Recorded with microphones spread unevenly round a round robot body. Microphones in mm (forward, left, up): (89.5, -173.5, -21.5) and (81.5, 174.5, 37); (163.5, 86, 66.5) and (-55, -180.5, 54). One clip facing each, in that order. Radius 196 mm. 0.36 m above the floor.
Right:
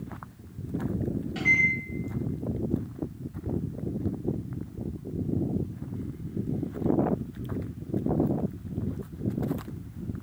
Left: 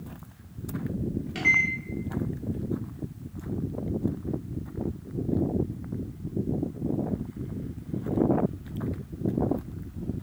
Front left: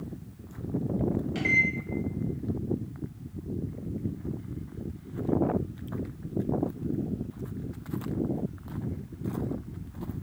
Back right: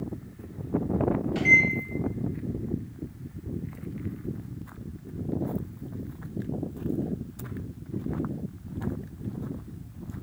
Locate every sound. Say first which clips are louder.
1.4 s a microwave: right 1 dB, back right 3 dB; 115° left, 1.1 m